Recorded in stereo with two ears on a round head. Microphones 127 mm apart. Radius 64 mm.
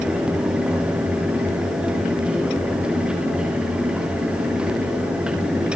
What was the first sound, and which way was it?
Only background noise.